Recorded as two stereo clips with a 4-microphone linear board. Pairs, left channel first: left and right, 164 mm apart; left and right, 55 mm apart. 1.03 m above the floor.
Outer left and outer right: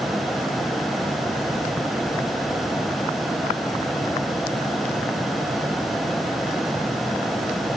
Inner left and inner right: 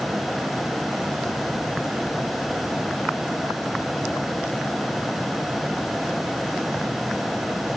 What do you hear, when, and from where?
Only background noise.